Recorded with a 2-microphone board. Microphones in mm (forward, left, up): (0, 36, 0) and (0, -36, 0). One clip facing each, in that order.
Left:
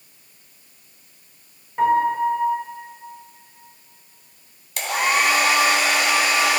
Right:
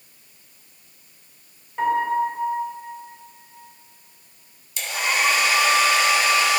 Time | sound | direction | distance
1.8 | a piano | 5° left (ahead or behind) | 2 m
4.8 | a hair dryer | 60° left (ahead or behind) | 1.3 m